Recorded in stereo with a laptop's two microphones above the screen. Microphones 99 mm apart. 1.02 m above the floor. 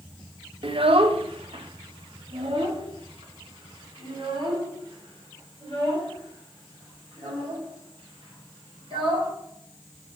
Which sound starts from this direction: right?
A child speaking, at 0.6 s.